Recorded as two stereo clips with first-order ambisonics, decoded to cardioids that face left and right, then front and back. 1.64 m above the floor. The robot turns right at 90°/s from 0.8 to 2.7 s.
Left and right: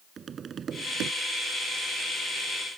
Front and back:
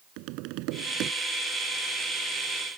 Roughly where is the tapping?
Behind right.